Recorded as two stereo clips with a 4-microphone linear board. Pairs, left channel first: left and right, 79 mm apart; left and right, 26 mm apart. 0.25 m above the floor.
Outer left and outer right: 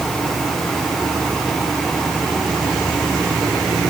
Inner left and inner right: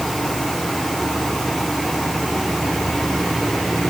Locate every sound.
Only background noise.